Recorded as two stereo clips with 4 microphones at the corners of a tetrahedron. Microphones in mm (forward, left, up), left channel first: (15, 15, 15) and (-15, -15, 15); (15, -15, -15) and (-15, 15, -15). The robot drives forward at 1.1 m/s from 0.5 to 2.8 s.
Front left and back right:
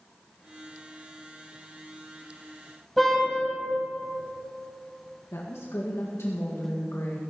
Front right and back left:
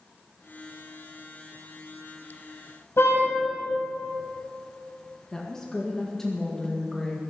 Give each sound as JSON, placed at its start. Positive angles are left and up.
{"t": 3.0, "sound": "a car horn", "azimuth_deg": -45, "distance_m": 5.0}
{"t": 5.3, "sound": "a woman speaking", "azimuth_deg": 35, "distance_m": 1.8}